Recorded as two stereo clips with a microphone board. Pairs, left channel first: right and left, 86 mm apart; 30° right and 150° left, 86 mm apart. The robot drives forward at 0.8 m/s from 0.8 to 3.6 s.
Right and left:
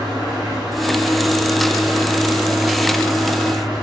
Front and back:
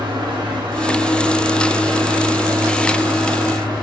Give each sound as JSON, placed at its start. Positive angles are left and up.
{"t": 0.0, "sound": "an engine running", "azimuth_deg": 180, "distance_m": 8.5}